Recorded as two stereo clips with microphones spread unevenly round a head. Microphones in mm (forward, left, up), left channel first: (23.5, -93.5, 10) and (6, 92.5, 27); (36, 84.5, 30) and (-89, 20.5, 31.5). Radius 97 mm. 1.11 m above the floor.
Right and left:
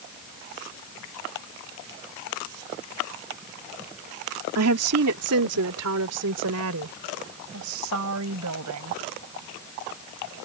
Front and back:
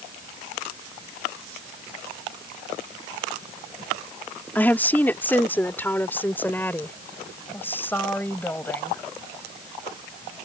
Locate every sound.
4.5 s a woman speaking: 105° left